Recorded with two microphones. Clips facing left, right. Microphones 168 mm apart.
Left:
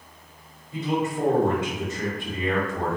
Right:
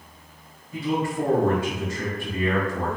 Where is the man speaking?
20° left (ahead or behind), 1.0 m.